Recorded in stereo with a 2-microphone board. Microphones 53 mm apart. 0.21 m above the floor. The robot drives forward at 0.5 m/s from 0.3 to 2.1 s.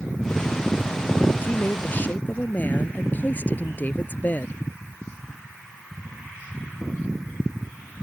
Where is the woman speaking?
30° left (ahead or behind); by 4.6 s 35° left (ahead or behind).